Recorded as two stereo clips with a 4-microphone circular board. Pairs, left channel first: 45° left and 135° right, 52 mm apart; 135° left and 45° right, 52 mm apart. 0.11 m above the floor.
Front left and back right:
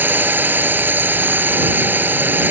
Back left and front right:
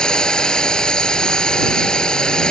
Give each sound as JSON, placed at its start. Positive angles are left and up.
{"t": 0.0, "sound": "a drone", "azimuth_deg": -160}